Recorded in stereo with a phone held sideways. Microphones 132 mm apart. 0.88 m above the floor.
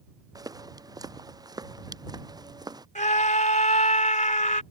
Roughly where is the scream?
Left.